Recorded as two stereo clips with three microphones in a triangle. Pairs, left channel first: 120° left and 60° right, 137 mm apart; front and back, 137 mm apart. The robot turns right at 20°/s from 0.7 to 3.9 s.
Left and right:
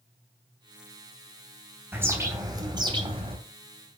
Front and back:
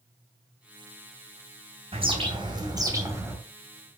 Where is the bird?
135° right, 3 m; by 3.4 s 105° right, 3 m.